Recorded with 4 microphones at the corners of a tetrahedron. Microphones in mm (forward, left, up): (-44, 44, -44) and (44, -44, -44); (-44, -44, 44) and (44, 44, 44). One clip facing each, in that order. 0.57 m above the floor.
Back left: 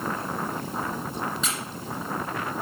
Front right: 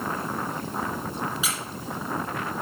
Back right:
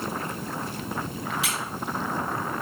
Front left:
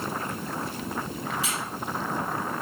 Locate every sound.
1.4 s a squeak: 130° right, 1.7 m